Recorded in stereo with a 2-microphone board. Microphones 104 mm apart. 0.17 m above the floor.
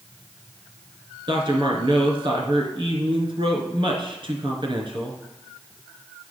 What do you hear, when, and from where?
1.3 s a man speaking: 50° right (ahead or behind), 2 m